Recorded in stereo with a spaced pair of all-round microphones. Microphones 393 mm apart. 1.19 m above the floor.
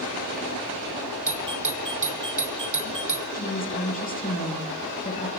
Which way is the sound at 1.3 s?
50° right (ahead or behind).